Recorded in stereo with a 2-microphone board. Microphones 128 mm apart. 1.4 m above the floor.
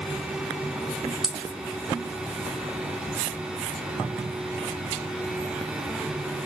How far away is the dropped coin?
About 1.2 m.